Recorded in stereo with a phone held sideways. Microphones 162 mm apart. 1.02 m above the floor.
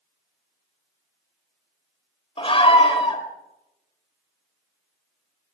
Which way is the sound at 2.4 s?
35° left (ahead or behind).